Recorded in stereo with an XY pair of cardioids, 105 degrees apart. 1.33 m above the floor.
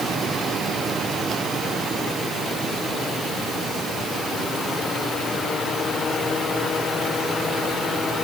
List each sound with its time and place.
Only background noise.